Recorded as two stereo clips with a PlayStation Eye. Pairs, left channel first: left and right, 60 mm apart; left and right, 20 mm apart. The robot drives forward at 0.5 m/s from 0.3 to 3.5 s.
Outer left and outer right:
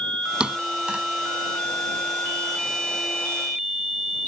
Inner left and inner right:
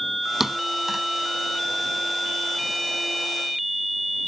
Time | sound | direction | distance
0.4 | a thud | 15° right (ahead or behind) | ?